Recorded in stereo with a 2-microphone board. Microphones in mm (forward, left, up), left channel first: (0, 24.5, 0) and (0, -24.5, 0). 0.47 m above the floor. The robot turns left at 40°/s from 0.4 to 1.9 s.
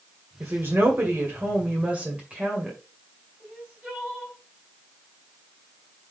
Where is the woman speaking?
90° right, 2 m; by 2.8 s 150° right, 2 m.